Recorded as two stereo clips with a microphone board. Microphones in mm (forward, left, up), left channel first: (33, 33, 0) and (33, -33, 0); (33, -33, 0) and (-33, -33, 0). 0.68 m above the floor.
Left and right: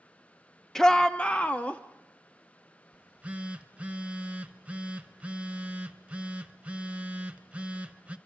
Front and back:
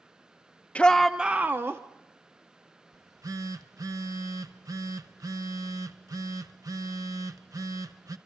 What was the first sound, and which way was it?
A shout, 20° left.